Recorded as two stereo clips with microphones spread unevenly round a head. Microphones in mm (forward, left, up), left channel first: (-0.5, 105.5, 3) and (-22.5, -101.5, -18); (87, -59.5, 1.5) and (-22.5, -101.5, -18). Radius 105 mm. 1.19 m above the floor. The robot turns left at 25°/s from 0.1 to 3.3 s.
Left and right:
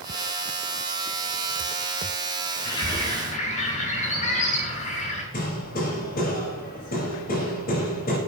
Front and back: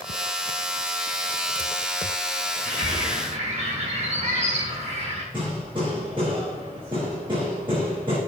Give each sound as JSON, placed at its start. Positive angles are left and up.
{"t": 2.6, "sound": "a bird", "azimuth_deg": 155, "distance_m": 4.5}
{"t": 5.3, "sound": "hammering", "azimuth_deg": 130, "distance_m": 4.5}